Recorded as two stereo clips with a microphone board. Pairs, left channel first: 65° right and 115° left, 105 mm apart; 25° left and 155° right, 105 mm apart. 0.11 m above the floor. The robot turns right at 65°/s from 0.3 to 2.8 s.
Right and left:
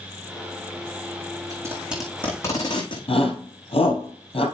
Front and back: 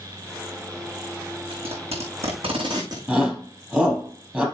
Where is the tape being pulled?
165° left, 4 m; by 3.0 s 110° right, 4 m.